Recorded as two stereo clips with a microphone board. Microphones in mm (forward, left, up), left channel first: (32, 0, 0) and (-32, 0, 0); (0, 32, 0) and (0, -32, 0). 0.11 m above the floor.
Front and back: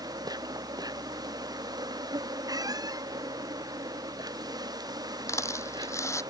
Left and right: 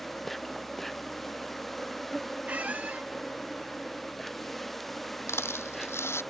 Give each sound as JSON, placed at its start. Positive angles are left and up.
{"t": 0.0, "sound": "an insect", "azimuth_deg": 175}
{"t": 2.5, "sound": "a squeak", "azimuth_deg": -160}
{"t": 5.3, "sound": "a rattle", "azimuth_deg": 40}